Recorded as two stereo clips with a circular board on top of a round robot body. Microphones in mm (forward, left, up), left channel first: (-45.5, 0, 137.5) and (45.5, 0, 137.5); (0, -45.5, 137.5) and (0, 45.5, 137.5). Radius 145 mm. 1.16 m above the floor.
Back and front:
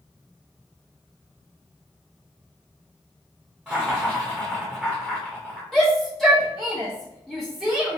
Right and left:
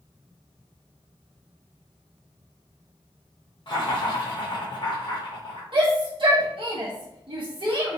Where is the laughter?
80° right, 0.8 m.